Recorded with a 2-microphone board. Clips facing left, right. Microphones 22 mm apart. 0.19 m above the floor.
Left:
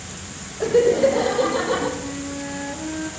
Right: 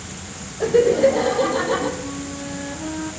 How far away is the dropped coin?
I don't hear a dropped coin.